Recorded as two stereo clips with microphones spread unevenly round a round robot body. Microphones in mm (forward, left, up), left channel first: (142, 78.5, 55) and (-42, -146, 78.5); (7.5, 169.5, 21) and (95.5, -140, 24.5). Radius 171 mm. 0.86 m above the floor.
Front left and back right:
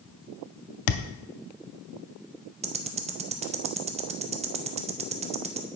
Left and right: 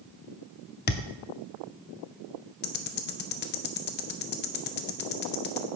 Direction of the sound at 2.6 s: 160° left.